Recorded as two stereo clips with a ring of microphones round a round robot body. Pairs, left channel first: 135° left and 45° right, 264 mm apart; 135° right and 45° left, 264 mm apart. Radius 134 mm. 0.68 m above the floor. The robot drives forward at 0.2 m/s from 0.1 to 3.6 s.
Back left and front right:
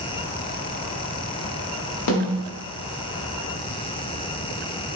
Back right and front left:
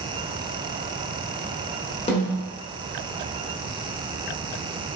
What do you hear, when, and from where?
2.1 s a snare drum: 155° left, 0.8 m